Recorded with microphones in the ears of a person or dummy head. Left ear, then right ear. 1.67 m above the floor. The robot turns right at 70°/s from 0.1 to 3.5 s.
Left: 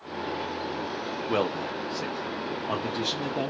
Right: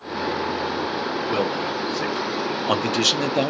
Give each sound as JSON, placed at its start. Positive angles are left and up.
{"t": 1.3, "sound": "a man speaking", "azimuth_deg": 160, "distance_m": 0.7}